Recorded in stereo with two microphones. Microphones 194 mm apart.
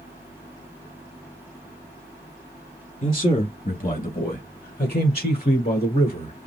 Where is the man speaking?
30° left (ahead or behind), 2 m; by 6.5 s 25° left (ahead or behind), 2 m.